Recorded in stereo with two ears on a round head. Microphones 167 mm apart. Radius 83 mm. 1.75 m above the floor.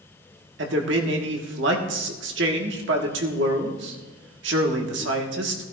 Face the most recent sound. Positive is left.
turn(degrees=-70)  # may be behind; listen again after turning